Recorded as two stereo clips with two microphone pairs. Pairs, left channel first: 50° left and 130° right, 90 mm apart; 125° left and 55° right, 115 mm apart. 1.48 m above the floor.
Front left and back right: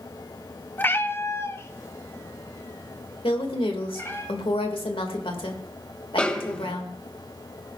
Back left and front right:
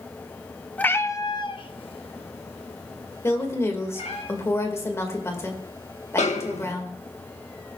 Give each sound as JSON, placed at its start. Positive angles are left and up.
{"t": 0.8, "sound": "a cat meowing", "azimuth_deg": 65, "distance_m": 0.7}
{"t": 3.2, "sound": "a woman speaking", "azimuth_deg": 60, "distance_m": 2.5}
{"t": 6.2, "sound": "a snare drum", "azimuth_deg": 130, "distance_m": 1.4}